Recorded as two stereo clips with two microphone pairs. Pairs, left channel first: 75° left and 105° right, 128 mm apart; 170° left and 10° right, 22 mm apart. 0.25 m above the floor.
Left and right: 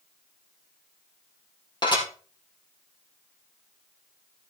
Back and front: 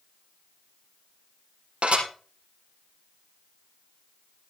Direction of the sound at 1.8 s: 20° left.